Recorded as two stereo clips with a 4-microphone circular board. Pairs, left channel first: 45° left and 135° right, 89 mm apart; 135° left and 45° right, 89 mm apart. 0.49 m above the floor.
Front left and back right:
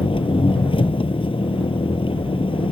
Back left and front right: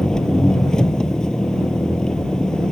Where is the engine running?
55° left.